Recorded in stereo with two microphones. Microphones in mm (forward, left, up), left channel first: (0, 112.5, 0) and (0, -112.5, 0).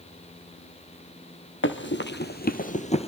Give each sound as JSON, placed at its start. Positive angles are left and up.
{"t": 1.6, "sound": "running footsteps", "side_deg": 60, "distance_m": 1.6}